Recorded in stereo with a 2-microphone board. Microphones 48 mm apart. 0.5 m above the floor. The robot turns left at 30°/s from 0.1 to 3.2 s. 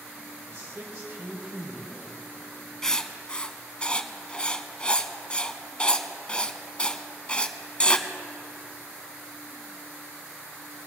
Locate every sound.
0.5 s a man speaking: 105° right, 2.5 m; by 2.1 s 155° right, 2.5 m
2.8 s writing: 15° left (ahead or behind), 0.6 m; by 8.1 s 25° left (ahead or behind), 0.6 m